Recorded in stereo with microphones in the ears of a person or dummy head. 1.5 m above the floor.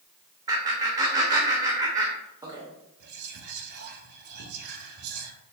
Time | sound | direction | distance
0.5 | laughter | 20° right (ahead or behind) | 0.5 m
3.0 | whispering | 55° right (ahead or behind) | 0.8 m